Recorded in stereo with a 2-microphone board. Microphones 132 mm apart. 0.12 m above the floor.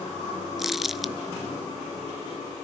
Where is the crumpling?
Centre (ahead or behind), 0.7 m.